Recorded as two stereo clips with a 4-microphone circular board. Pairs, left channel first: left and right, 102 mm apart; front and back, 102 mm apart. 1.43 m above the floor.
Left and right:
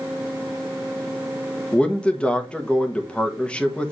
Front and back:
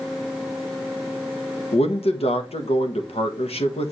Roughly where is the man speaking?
Ahead.